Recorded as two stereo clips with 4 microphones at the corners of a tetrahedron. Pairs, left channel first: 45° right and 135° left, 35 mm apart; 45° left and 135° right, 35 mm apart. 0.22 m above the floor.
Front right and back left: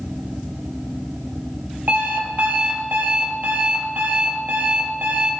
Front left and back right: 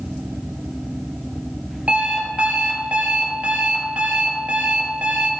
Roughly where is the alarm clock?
Behind.